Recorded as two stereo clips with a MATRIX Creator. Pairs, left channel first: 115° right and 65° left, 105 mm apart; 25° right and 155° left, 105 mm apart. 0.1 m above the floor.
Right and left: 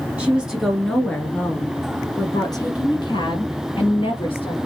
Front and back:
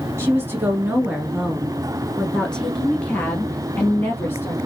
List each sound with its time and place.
0.2 s a woman speaking: 130° left, 1.6 m; by 4.6 s 90° right, 2.5 m